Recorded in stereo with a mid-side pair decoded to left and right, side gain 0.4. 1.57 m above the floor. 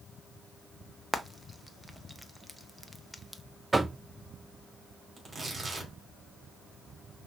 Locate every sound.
1.1 s frying: 5° left, 0.7 m
3.7 s knocking: 20° right, 0.6 m
5.2 s tearing paper: 35° right, 3 m